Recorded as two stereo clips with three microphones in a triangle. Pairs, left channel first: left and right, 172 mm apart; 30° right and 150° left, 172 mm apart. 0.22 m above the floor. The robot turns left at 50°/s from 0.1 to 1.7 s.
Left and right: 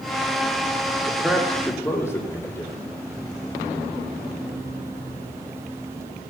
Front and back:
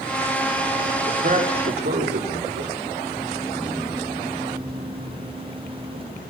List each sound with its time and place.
1.1 s a man speaking: 165° right, 7 m; by 2.7 s 165° left, 7 m